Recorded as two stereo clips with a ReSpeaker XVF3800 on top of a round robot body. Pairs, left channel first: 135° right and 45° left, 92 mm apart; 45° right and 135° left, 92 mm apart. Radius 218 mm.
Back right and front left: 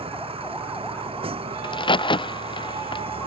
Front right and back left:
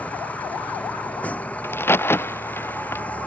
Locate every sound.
0.0 s a vehicle: 30° left
1.6 s a crack: 110° right